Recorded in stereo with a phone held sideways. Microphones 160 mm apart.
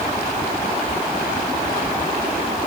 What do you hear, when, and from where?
Only background noise.